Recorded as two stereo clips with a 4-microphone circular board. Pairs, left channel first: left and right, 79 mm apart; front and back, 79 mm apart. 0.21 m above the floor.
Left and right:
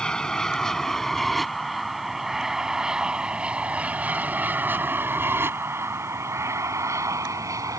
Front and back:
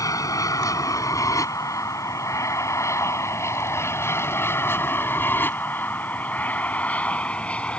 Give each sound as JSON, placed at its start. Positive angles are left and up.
{"t": 0.0, "sound": "an aircraft", "azimuth_deg": 15}